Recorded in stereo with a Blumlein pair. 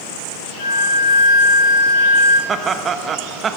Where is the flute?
65° left, 4 m.